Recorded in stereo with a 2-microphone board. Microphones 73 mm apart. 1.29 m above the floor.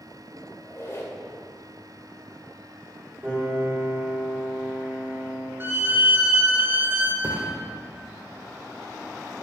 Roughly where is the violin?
Right.